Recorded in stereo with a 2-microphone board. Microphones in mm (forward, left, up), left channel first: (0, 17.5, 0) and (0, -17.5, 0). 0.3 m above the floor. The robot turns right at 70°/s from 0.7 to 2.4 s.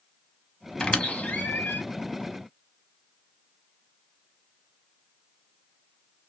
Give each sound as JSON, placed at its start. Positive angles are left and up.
{"t": 0.8, "sound": "a squeak", "side_deg": 20, "distance_m": 0.7}